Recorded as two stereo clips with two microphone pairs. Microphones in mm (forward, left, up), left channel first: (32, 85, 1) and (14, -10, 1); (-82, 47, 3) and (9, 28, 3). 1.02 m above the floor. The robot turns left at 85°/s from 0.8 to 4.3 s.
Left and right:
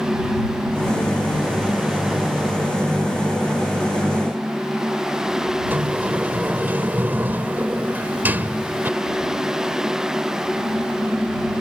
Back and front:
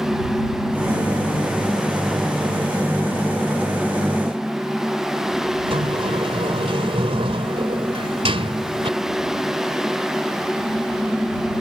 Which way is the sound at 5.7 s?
30° right.